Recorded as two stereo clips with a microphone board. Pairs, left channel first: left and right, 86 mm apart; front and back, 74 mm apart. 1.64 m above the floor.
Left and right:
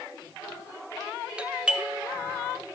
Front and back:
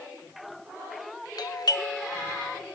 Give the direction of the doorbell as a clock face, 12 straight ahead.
12 o'clock.